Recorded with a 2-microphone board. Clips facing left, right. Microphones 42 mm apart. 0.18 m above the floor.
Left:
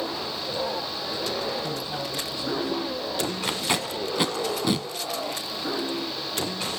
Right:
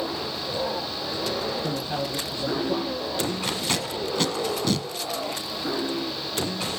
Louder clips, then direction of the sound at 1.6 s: Right 2 dB; 45° right (ahead or behind).